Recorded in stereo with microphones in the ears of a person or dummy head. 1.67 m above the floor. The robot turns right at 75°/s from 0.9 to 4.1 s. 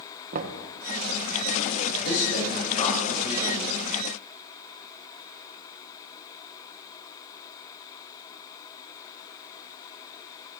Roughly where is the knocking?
Right.